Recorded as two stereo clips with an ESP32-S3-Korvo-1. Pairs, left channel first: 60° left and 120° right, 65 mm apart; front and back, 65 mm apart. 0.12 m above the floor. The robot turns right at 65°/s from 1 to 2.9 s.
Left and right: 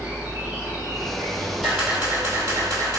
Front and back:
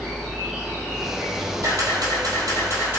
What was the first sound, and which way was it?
An insect, 110° right.